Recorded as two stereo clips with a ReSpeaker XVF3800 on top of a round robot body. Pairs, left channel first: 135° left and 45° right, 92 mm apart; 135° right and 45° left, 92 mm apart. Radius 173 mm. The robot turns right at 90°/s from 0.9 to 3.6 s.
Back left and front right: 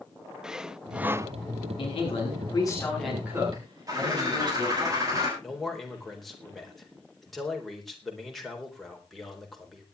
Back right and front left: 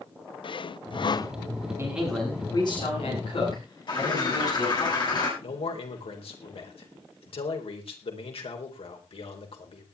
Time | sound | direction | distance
0.4 | sawing | 125° right | 0.8 m
1.8 | a man speaking | 105° left | 8.5 m
3.9 | a bird | 95° right | 8.5 m
5.4 | a man speaking | 135° right | 4 m